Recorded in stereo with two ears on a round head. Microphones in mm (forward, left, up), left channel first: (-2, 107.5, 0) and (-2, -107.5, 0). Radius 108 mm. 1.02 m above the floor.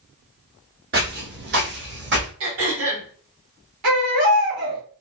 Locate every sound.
0.9 s footsteps: 40° right (ahead or behind), 1.3 m; by 2.3 s 50° right (ahead or behind), 1.8 m
2.4 s throat clearing: 60° right (ahead or behind), 1.5 m
3.8 s a baby crying: 85° right, 1.8 m